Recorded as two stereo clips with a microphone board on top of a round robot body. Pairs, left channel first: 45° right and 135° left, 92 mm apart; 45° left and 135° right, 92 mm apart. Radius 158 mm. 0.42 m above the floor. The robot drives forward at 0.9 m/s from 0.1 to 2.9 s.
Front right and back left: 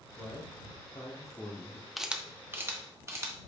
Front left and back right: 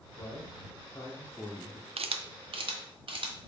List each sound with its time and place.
0.2 s a man speaking: 10° right, 2.5 m; by 1.9 s 35° right, 1.4 m
2.0 s a camera shutter: 135° right, 0.6 m; by 3.3 s 160° right, 1.3 m